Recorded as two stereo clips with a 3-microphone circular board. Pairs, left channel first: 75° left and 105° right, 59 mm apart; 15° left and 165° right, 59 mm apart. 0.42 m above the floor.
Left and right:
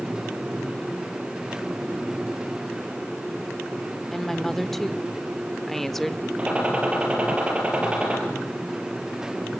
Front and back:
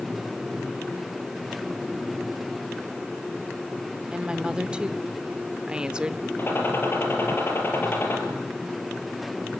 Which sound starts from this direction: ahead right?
A gunshot, at 6.4 s.